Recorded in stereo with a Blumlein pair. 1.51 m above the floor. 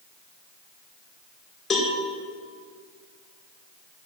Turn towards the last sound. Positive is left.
turn(degrees=15)